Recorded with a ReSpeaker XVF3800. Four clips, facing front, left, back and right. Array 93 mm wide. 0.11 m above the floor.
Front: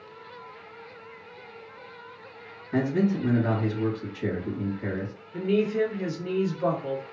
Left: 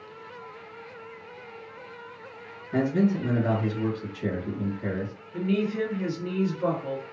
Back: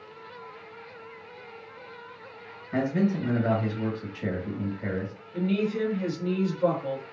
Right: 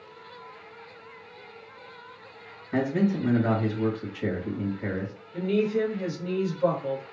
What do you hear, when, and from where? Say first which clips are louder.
2.7 s a man speaking: left 1 dB, front 1 dB; 100° right, 1.4 m
5.3 s a woman speaking: right 2 dB, front 3 dB; 35° left, 1.2 m